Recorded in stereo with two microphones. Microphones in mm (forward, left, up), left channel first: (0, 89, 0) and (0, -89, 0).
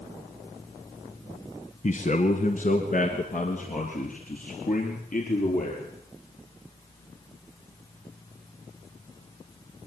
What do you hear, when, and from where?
1.8 s a man speaking: 45° left (ahead or behind), 1.9 m; by 5.9 s 50° left (ahead or behind), 5.5 m